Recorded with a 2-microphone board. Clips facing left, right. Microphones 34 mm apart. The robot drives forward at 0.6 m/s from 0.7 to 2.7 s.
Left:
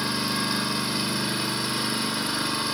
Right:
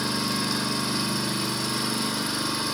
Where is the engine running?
25° left (ahead or behind), 1.6 m; by 2.8 s 30° left (ahead or behind), 1.6 m.